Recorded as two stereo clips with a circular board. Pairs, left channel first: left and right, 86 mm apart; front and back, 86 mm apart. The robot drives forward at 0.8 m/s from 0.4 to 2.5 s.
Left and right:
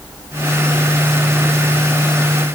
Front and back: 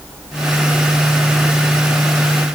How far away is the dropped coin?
No dropped coin in this recording.